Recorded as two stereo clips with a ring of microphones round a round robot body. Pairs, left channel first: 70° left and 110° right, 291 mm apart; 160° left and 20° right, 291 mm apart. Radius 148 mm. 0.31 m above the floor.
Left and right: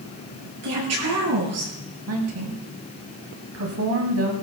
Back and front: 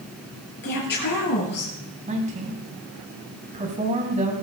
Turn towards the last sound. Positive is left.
turn(degrees=-85)